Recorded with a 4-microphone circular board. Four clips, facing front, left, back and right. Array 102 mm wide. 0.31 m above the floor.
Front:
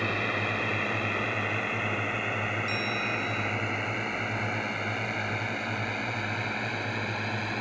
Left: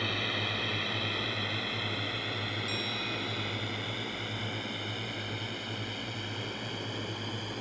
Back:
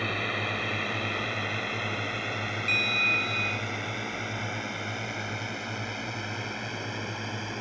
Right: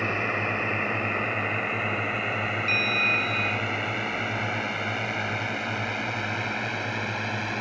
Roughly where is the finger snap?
I don't hear a finger snap.